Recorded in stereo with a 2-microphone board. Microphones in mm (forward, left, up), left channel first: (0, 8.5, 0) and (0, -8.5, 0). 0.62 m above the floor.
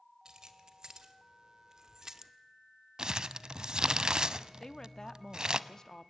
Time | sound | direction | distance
0.2 | keys jangling | 55° right (ahead or behind) | 2 m
3.0 | crumpling | 55° right (ahead or behind) | 0.7 m
4.6 | a woman speaking | 35° left (ahead or behind) | 1.0 m